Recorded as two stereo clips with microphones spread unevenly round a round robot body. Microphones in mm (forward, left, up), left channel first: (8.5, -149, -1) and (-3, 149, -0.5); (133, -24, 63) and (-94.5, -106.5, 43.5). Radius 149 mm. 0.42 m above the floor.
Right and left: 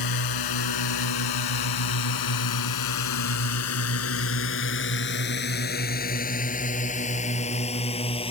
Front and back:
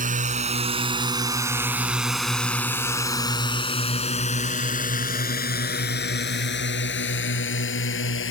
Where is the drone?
105° right; by 8.3 s 15° right.